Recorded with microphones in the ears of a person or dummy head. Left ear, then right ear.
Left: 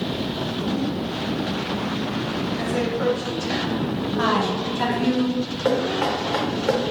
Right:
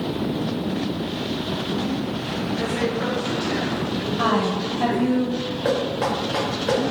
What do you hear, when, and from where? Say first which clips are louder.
2.6 s a woman speaking: even; 40° left (ahead or behind), 1.2 m
4.2 s a woman speaking: even; 30° left (ahead or behind), 1.0 m
5.7 s knocking: left 1 dB; 15° left (ahead or behind), 0.6 m